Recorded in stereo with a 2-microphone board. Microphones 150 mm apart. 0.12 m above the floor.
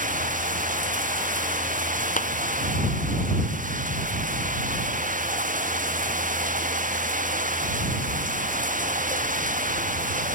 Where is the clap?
60° left (ahead or behind).